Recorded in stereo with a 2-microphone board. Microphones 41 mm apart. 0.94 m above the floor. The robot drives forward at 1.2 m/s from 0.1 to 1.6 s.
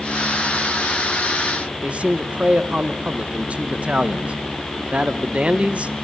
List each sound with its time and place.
1.8 s a man speaking: 30° right (ahead or behind), 0.9 m